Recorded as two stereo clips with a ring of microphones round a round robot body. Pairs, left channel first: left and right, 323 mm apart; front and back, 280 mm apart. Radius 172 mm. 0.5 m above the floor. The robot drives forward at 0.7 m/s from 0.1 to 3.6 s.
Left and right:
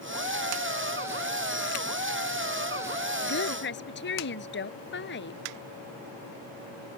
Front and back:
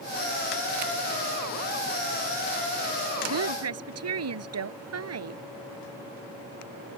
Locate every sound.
3.2 s a woman speaking: 150° left